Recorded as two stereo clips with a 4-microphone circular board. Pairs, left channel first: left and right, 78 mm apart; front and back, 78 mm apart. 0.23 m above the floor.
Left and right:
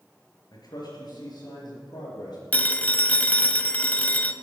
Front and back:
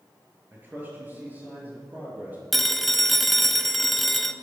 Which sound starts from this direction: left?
A phone ringing, at 2.5 s.